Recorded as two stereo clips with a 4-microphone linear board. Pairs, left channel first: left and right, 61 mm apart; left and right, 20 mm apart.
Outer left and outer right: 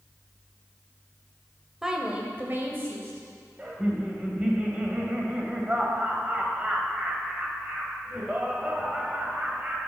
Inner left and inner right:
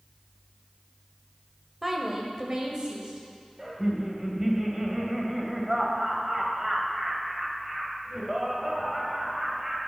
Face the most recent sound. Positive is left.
turn(degrees=-20)  # may be behind; listen again after turning